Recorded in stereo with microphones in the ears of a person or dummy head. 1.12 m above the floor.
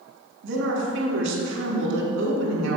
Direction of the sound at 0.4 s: 70° right (ahead or behind).